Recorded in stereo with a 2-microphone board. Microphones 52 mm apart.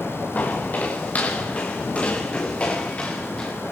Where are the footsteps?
30° left (ahead or behind), 8.5 m; by 3.5 s 20° left (ahead or behind), 7 m.